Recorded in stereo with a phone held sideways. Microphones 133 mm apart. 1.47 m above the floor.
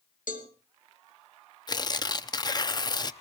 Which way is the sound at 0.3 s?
85° left.